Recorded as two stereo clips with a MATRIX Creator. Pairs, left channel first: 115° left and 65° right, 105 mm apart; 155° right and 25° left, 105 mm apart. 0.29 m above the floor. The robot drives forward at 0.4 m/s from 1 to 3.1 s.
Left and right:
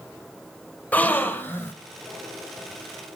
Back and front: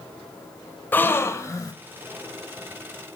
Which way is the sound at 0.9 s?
160° left.